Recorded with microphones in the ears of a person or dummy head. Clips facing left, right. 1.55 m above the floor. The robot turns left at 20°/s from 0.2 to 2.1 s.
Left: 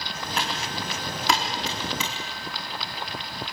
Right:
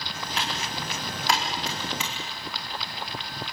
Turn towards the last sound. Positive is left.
turn(degrees=80)